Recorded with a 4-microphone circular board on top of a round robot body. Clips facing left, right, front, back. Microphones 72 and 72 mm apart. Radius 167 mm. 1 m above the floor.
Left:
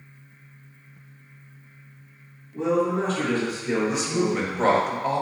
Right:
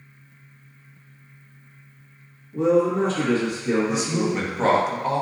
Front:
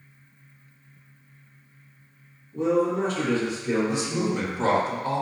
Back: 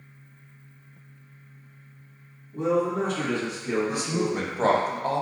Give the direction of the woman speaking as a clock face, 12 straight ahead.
6 o'clock.